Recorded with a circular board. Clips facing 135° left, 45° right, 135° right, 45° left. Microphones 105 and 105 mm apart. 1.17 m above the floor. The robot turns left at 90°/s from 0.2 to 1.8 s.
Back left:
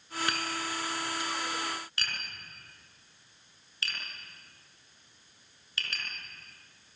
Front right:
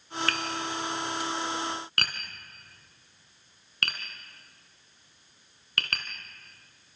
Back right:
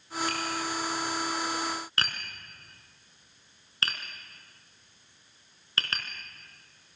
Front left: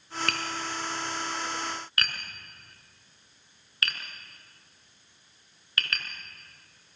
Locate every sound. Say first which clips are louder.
0.3 s tapping: front right 2 dB, back right 1 dB; 60° left, 4 m; by 6.1 s 75° right, 4 m